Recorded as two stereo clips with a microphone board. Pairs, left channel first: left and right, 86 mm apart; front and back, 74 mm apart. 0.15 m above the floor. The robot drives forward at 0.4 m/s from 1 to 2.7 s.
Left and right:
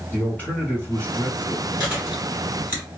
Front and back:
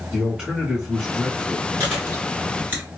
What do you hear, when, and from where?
0.1 s a man speaking: 115° left, 1.5 m; by 1.7 s 135° left, 1.6 m
1.8 s chewing: 130° right, 1.7 m; by 2.8 s 145° right, 1.8 m